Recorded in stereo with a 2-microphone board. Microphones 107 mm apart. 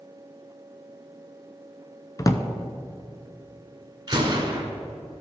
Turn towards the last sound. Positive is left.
turn(degrees=-45)  # may be behind; listen again after turning